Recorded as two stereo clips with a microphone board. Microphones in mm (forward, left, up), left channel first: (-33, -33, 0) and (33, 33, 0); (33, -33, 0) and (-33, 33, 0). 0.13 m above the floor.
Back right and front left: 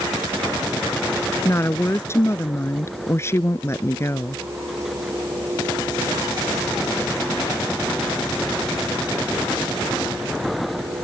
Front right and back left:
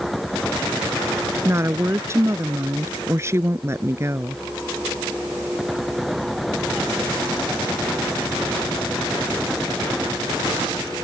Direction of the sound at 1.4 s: Straight behind.